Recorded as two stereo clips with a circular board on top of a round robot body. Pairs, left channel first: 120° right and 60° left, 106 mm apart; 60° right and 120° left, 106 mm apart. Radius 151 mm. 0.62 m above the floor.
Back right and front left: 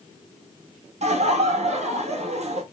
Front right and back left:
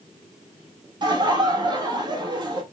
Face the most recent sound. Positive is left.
turn(degrees=70)